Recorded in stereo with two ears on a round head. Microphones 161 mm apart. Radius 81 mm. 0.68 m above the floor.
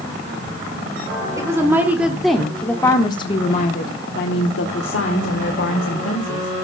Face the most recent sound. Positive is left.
turn(degrees=75)  # may be behind; listen again after turning